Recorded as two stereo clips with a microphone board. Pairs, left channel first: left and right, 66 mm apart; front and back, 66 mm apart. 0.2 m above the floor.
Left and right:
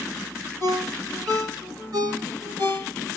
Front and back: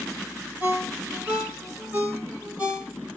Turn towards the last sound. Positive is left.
turn(degrees=-110)